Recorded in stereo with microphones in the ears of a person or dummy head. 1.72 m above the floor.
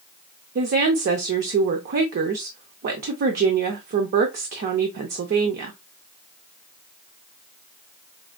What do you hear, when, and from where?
0.6 s a woman speaking: 40° right (ahead or behind), 0.6 m